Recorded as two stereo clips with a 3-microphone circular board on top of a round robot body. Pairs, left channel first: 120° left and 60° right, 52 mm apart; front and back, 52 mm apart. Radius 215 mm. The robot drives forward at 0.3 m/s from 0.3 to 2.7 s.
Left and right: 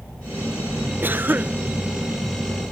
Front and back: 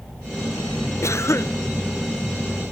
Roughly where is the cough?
Ahead.